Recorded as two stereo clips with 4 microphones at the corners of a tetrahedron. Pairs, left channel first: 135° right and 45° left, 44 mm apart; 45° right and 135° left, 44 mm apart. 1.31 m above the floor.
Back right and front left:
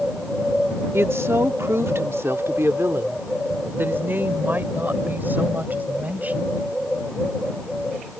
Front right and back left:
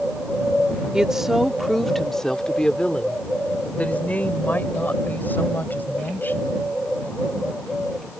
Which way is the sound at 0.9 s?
65° left.